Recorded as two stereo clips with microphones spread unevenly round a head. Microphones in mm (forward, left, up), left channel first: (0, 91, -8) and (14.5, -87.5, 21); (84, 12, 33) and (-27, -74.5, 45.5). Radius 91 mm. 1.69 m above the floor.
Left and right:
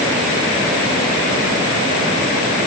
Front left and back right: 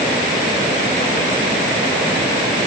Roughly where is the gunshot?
No gunshot in this recording.